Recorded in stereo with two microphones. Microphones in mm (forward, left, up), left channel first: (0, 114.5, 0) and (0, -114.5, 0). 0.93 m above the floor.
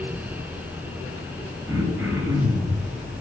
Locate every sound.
1.7 s throat clearing: 10° right (ahead or behind), 3 m